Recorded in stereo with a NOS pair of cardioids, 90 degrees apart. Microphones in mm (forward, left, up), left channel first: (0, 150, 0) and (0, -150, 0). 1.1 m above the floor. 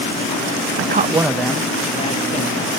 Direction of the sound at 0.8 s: 45° right.